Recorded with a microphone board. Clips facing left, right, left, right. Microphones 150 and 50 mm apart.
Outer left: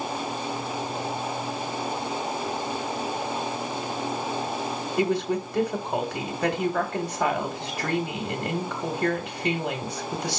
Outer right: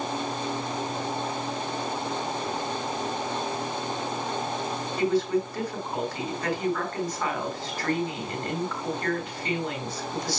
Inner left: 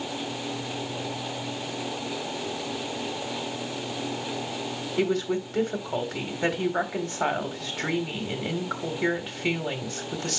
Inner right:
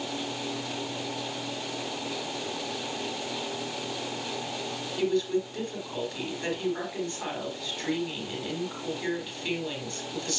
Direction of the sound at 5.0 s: 70° left (ahead or behind).